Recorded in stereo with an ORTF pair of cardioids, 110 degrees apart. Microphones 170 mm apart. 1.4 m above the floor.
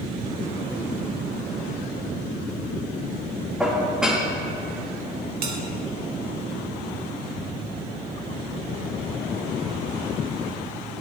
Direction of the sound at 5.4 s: 60° right.